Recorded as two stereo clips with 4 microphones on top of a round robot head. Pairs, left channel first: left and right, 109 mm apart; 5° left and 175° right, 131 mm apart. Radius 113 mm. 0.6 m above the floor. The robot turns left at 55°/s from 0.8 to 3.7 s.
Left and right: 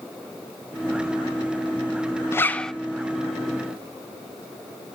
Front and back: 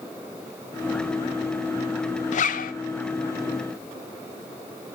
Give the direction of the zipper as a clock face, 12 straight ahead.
11 o'clock.